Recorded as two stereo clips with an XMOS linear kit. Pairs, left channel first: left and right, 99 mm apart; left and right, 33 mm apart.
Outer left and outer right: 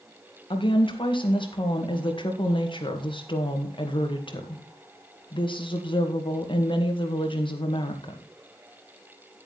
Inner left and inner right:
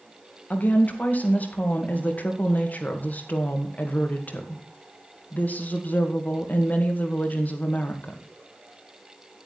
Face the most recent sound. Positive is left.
turn(degrees=55)  # may be behind; listen again after turning